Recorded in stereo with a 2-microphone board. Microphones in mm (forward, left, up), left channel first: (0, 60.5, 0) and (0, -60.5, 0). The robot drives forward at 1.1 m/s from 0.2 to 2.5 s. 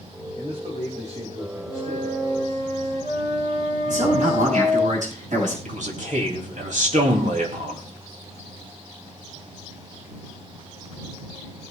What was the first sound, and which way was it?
A man speaking, 60° right (ahead or behind).